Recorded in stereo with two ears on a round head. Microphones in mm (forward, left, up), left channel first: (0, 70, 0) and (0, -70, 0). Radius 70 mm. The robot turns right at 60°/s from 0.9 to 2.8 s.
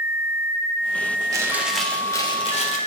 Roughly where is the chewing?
Ahead right.